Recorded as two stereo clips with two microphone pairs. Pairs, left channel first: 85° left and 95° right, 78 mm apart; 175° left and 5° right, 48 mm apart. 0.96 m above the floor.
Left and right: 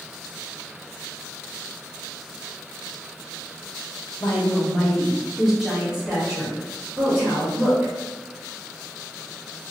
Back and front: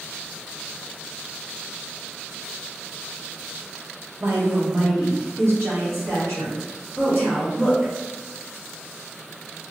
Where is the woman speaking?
30° left, 0.8 m; by 7.9 s 30° right, 2 m.